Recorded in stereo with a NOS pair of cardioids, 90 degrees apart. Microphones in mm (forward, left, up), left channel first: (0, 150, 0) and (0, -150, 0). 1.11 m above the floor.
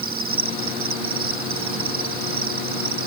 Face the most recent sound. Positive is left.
turn(degrees=-45)